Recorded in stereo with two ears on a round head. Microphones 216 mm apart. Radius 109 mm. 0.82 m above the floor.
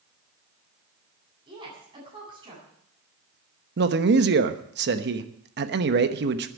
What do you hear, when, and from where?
1.5 s a woman speaking: 20° right (ahead or behind), 8 m
3.8 s a man speaking: 45° right (ahead or behind), 1.0 m